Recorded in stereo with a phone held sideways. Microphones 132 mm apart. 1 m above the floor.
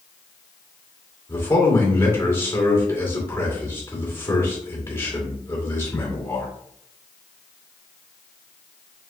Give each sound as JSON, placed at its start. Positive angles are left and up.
{"t": 1.3, "sound": "a man speaking", "side_deg": 20, "distance_m": 2.5}